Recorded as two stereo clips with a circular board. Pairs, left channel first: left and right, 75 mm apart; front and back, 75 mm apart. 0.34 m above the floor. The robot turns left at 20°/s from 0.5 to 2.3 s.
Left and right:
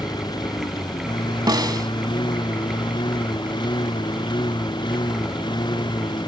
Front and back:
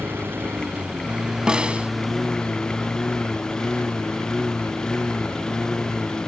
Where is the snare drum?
105° right; by 1.9 s 110° right.